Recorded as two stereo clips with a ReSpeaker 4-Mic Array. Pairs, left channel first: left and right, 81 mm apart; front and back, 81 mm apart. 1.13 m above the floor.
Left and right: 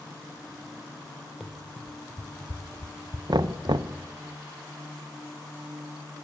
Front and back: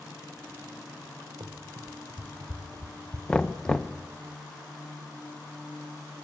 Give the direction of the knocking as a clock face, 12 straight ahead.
3 o'clock.